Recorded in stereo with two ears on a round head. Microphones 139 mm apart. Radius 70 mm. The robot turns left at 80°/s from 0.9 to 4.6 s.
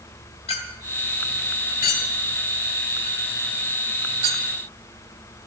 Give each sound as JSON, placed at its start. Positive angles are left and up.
{"t": 0.5, "sound": "a clink", "side_deg": 45, "distance_m": 2.5}